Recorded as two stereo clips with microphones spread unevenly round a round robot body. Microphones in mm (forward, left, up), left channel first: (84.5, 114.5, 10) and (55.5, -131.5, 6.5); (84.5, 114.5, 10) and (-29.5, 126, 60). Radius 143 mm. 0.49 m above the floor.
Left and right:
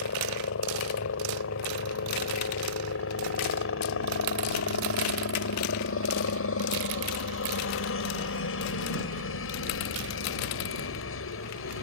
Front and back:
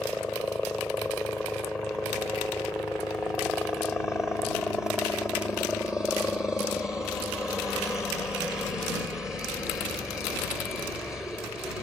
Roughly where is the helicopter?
Left.